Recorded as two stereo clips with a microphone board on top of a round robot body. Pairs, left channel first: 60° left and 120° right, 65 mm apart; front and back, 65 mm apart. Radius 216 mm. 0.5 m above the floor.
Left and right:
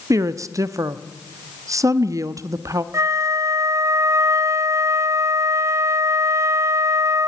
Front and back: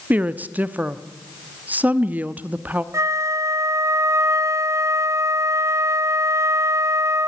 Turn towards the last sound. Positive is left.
turn(degrees=-150)